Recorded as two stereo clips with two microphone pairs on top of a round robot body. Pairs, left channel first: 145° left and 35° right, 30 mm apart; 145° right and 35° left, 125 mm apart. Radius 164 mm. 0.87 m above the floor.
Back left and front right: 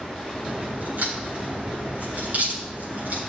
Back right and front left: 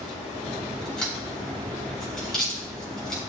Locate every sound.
0.4 s a crack: 60° right, 4 m